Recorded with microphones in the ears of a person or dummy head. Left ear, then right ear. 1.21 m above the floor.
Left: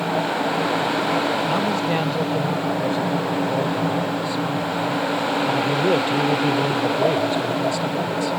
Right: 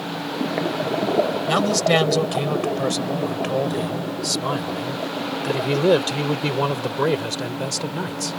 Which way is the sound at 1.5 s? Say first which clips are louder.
Right 2 dB; 75° right (ahead or behind).